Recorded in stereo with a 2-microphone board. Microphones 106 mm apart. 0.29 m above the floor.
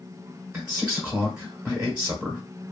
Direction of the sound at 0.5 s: 10° right (ahead or behind).